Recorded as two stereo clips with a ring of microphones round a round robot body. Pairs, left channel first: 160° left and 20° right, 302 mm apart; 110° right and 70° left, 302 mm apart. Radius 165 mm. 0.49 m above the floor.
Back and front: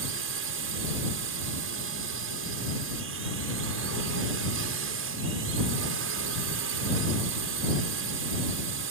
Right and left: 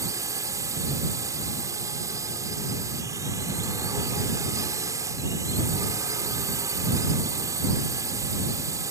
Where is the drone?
10° right.